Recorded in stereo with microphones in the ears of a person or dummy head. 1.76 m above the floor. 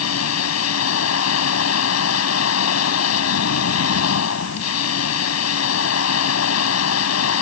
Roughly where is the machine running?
Left.